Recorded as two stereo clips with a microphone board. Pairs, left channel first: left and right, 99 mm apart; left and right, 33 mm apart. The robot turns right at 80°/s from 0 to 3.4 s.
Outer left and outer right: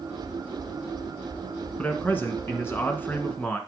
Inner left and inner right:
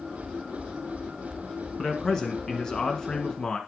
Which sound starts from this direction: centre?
A man speaking, at 1.8 s.